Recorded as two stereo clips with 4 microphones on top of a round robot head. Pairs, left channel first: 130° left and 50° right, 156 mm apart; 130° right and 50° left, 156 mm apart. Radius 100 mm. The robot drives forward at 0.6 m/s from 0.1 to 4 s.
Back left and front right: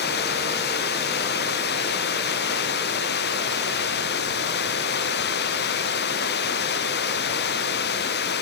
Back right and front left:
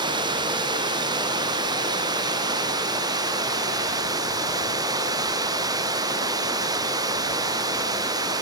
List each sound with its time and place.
0.0 s running water: 115° left; by 8.4 s 120° left